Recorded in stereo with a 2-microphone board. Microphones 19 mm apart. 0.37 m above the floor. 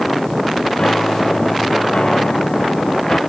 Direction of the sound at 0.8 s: 65° left (ahead or behind).